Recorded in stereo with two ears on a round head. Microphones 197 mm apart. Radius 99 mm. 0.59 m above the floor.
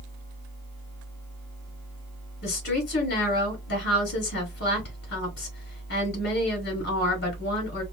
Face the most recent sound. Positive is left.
turn(degrees=50)  # may be behind; listen again after turning